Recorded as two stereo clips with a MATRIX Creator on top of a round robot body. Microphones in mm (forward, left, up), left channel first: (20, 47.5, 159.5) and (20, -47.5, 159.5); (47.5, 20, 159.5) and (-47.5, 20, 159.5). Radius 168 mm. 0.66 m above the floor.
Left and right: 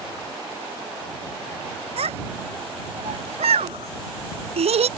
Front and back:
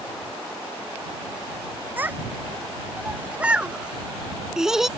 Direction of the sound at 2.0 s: 105° right.